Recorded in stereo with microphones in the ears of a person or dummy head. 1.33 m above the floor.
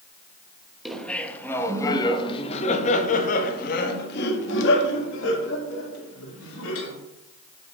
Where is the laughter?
Centre (ahead or behind), 1.5 m; by 6.9 s 85° left, 3 m.